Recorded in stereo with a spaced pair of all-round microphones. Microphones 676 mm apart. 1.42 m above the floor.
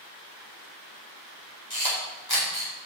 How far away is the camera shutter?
About 4.5 m.